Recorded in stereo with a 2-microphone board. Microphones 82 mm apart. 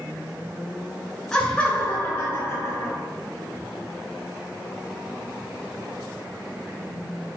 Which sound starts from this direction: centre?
Laughter, at 1.3 s.